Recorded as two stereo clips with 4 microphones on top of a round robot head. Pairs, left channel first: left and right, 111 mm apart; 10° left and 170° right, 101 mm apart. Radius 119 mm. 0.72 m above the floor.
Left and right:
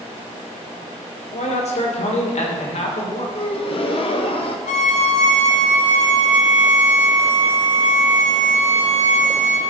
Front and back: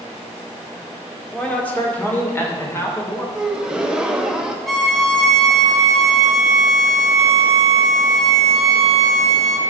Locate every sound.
1.3 s a man speaking: 90° left, 2 m; by 3.2 s 70° left, 3 m
3.4 s a gasp: 110° left, 1.1 m
4.7 s a violin: 100° left, 2 m